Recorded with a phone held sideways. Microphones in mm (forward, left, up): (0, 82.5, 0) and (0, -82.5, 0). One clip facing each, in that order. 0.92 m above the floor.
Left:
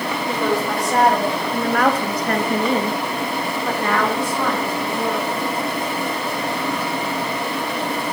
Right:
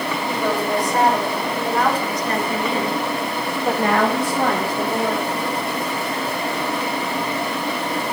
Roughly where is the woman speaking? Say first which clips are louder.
Left 1 dB; left.